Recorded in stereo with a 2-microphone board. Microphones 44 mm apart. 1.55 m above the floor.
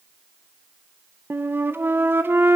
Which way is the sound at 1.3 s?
55° right (ahead or behind).